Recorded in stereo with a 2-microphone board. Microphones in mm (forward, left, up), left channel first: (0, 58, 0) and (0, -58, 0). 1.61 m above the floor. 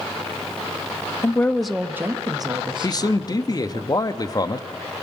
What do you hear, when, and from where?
1.2 s a woman speaking: 25° left (ahead or behind), 0.7 m; by 3.8 s 55° right (ahead or behind), 1.9 m
2.8 s a man speaking: 35° left (ahead or behind), 0.6 m